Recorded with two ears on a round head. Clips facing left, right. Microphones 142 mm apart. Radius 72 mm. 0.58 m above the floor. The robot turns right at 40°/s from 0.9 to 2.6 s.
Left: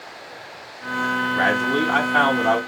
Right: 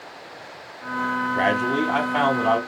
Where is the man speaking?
40° right, 1.4 m; by 2.6 s 10° left, 1.4 m.